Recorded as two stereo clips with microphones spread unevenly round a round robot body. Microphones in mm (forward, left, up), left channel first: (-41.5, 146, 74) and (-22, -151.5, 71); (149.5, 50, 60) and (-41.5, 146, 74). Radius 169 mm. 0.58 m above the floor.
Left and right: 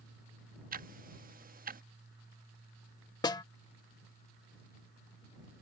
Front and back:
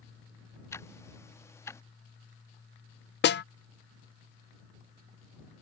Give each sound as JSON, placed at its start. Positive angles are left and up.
{"t": 0.7, "sound": "ticking", "azimuth_deg": -80}
{"t": 3.2, "sound": "a snare drum", "azimuth_deg": 15}